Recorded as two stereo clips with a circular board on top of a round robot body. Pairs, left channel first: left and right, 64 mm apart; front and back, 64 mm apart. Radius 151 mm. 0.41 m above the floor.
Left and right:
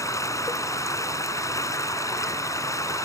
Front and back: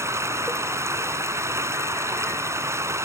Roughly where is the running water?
Behind left.